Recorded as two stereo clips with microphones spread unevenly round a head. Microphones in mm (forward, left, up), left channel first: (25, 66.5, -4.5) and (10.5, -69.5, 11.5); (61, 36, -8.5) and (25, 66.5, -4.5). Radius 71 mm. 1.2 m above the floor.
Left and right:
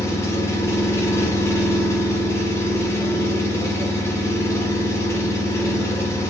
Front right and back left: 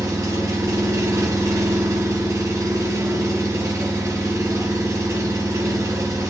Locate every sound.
0.0 s an engine running: 160° left, 1.2 m